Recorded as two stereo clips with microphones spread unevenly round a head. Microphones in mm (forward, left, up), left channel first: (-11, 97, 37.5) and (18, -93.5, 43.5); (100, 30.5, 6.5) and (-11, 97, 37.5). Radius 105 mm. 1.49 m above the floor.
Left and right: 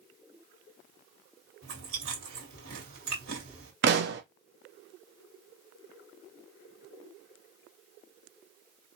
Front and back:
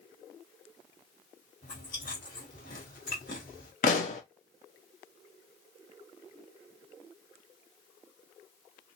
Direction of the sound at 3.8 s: 70° right.